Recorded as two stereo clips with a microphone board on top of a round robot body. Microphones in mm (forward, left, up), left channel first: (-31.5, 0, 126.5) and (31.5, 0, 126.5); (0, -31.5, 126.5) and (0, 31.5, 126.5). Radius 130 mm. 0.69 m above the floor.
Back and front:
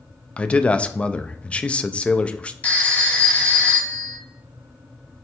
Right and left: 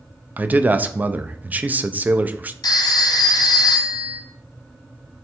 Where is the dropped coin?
I don't hear a dropped coin.